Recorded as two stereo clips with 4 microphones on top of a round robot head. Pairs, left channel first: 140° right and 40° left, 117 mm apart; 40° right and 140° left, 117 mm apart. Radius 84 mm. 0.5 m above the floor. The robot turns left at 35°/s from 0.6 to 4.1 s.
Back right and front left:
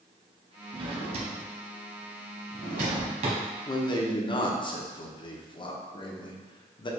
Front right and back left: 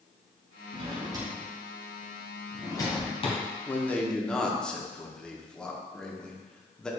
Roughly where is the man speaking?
Right.